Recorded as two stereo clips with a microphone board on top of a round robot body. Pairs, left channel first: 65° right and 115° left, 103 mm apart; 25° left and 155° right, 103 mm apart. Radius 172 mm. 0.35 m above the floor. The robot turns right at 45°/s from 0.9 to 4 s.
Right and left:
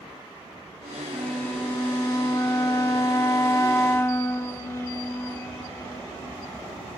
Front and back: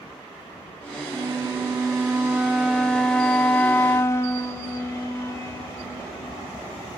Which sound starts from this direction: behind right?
A flute, at 1.1 s.